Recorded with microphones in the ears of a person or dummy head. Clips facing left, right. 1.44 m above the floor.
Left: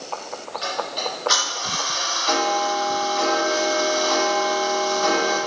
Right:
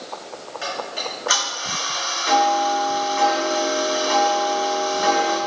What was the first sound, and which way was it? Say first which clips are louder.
Ticking: left 1 dB; 25° right (ahead or behind).